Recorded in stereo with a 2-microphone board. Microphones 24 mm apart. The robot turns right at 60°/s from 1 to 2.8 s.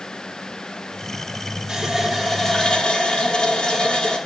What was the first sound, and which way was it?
A running tap, 20° right.